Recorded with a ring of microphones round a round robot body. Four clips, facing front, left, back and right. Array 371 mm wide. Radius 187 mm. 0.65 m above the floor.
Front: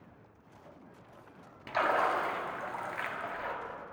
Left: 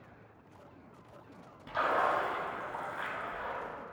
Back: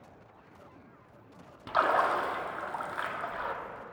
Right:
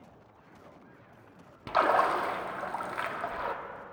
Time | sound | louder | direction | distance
1.7 | a splash | right 5 dB, back 3 dB | 100° right | 0.6 m